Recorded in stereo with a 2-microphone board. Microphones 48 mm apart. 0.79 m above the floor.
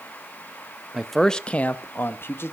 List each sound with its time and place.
0.9 s a man speaking: 5° right (ahead or behind), 0.7 m; by 2.5 s 50° left (ahead or behind), 1.1 m